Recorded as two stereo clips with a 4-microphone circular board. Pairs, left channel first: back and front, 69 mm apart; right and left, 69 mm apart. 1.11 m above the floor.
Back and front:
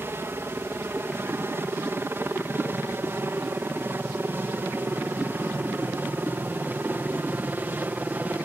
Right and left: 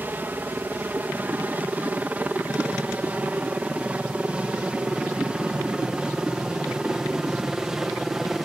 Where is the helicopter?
40° left; by 8.5 s 15° left.